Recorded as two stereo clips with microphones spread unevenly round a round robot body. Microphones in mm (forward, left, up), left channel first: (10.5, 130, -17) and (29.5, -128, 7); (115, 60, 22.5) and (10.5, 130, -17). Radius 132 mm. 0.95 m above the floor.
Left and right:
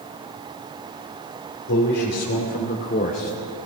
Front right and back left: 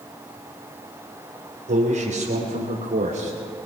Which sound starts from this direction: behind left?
A man speaking, at 1.7 s.